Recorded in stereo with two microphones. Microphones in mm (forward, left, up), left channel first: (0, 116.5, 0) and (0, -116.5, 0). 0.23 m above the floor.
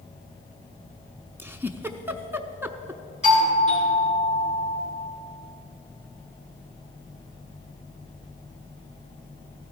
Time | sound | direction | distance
1.4 | a giggle | 10° right (ahead or behind) | 0.6 m
3.2 | a doorbell | 30° left (ahead or behind) | 3.5 m